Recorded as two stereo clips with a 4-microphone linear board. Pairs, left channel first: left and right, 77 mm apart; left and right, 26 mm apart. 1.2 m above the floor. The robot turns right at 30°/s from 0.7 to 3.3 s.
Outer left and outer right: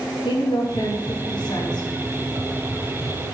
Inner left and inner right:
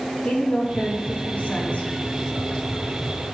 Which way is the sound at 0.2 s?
80° left.